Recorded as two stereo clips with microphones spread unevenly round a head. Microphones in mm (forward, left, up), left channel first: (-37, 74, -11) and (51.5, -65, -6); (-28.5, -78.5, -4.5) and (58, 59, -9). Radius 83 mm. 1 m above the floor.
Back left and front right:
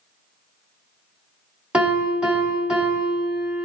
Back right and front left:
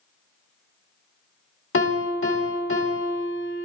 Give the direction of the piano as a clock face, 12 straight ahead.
5 o'clock.